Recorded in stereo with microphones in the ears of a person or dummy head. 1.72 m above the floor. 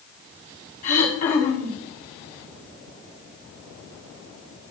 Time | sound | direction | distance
0.8 | throat clearing | 35° left (ahead or behind) | 2 m